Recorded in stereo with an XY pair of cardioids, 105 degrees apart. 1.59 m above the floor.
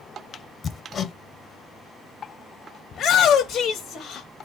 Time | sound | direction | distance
0.6 | hammering | 50° left | 0.7 m
2.9 | a shout | 65° left | 1.0 m